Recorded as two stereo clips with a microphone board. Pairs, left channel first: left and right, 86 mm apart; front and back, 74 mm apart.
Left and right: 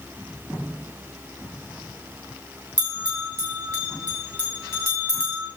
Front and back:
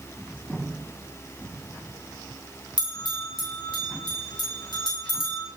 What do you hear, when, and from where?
2.8 s a bell: 25° left, 5.5 m